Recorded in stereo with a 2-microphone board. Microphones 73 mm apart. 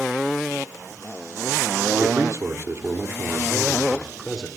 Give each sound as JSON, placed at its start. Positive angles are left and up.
{"t": 2.0, "sound": "a man speaking", "side_deg": -55, "distance_m": 2.5}